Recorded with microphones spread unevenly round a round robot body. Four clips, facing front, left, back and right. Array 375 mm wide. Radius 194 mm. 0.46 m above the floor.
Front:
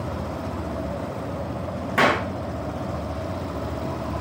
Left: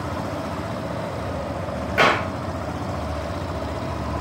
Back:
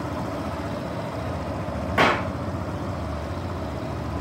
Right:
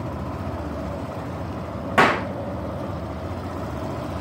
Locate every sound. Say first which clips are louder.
2.0 s a clap: right 1 dB, front 1 dB; 100° right, 3 m